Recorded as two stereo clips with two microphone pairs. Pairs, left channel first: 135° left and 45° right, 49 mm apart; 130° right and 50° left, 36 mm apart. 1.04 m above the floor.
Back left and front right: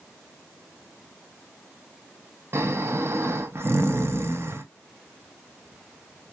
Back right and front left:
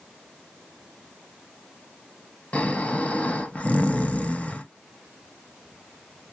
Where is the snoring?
80° right, 0.7 m.